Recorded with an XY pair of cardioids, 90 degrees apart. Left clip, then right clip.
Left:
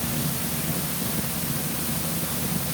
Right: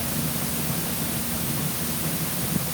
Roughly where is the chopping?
No chopping in this recording.